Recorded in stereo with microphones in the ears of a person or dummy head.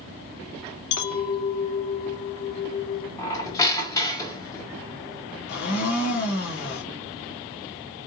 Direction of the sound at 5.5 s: 55° left (ahead or behind).